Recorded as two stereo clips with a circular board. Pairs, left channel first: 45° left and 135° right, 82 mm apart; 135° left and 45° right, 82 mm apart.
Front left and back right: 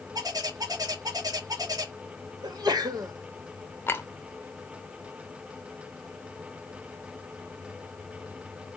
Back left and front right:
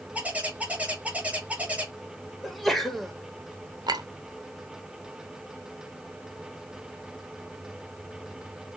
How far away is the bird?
About 1.3 m.